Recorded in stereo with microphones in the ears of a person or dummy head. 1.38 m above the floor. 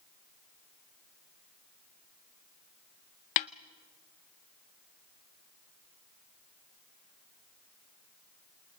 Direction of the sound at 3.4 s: 35° left (ahead or behind).